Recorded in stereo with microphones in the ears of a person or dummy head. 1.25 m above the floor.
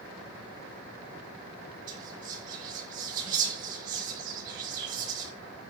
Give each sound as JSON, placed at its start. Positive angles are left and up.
{"t": 1.9, "sound": "whispering", "side_deg": -45, "distance_m": 2.5}